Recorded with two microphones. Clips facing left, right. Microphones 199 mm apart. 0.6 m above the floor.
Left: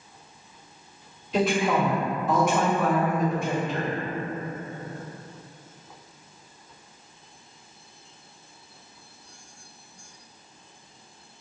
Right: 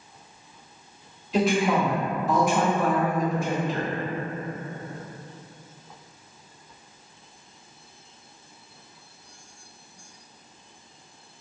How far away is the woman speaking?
About 1.5 m.